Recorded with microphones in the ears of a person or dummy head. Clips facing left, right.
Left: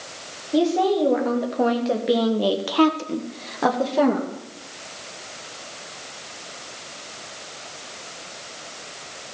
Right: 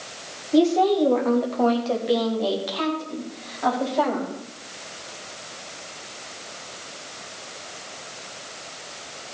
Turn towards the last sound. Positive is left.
turn(degrees=60)  # may be behind; listen again after turning